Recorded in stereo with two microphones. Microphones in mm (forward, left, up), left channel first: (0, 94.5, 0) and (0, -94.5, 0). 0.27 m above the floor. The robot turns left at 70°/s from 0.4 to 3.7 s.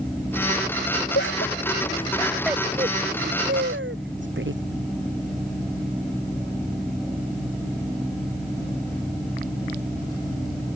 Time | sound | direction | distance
1.1 | laughter | 85° left | ?